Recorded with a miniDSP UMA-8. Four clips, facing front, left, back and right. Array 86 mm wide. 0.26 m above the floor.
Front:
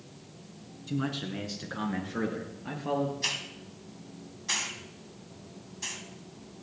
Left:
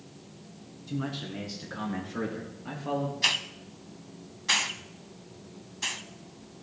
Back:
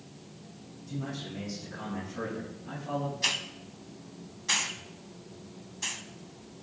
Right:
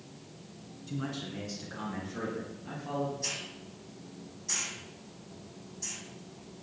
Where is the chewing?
I don't hear chewing.